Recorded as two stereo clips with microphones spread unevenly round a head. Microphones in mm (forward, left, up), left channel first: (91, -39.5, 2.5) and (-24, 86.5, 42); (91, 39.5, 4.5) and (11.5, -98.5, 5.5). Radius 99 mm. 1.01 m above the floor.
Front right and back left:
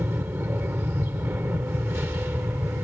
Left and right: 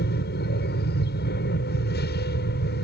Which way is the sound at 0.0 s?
55° left.